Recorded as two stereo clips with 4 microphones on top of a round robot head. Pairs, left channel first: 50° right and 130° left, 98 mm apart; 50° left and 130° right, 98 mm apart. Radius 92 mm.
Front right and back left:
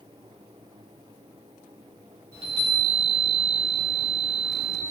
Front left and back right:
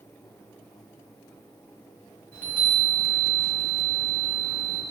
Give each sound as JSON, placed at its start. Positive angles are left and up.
{"t": 2.3, "sound": "a chime", "azimuth_deg": 120, "distance_m": 1.0}